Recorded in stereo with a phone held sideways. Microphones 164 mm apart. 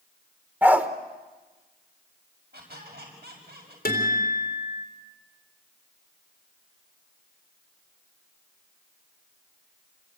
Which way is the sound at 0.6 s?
10° right (ahead or behind).